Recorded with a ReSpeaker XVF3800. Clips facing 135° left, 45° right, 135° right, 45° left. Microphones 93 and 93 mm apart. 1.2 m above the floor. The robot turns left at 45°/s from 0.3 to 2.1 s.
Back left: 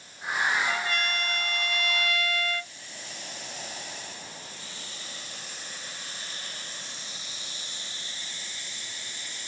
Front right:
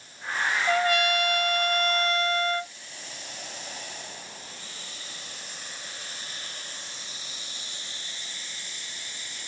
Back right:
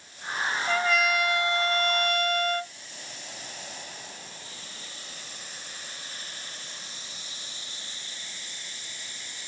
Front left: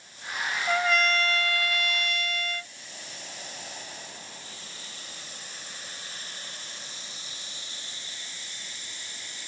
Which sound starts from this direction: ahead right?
A trumpet, at 0.7 s.